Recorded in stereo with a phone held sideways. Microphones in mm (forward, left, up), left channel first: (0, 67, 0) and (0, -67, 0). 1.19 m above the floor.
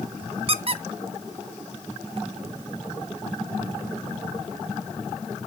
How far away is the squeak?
About 0.6 m.